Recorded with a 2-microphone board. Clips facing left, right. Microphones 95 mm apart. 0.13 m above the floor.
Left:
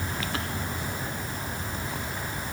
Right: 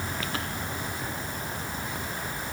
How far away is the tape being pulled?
I don't hear tape being pulled.